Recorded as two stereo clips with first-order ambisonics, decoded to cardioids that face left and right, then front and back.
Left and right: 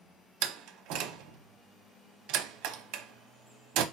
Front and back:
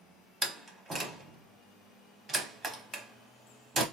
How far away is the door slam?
About 0.6 m.